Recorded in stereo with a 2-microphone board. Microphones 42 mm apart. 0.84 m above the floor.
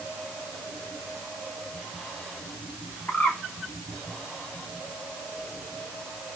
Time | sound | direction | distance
3.1 | a bird | 40° left (ahead or behind) | 2 m